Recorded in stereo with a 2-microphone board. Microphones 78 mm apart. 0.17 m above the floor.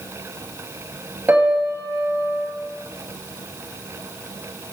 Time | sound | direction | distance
1.3 | a piano | 25° right (ahead or behind) | 0.6 m